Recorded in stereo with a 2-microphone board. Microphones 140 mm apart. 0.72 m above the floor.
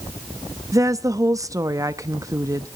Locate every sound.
0.7 s a woman speaking: 25° right (ahead or behind), 0.8 m